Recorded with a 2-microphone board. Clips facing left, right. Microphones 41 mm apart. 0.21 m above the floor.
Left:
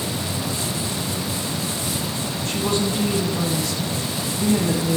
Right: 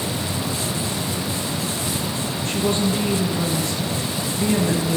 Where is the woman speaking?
35° right (ahead or behind), 3 m.